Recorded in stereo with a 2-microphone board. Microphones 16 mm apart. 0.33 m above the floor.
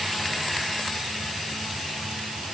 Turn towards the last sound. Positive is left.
No sound to turn to.